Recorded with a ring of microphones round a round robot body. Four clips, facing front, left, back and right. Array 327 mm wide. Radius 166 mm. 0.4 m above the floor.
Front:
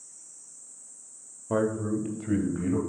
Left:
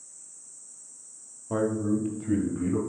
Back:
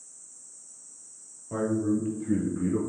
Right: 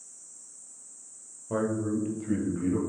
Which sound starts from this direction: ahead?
A man speaking, at 1.5 s.